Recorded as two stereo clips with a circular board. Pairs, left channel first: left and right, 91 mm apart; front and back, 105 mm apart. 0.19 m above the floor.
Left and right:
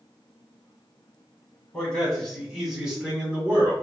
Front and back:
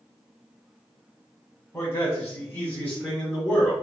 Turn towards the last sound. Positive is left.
turn(degrees=-65)